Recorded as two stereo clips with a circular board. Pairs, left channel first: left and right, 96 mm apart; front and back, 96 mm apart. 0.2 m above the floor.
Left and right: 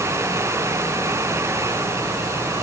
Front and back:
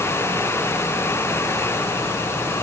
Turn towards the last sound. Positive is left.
No sound to turn to.